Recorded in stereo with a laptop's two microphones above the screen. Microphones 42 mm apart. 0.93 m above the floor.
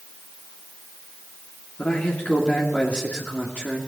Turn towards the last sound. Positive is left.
turn(degrees=35)  # may be behind; listen again after turning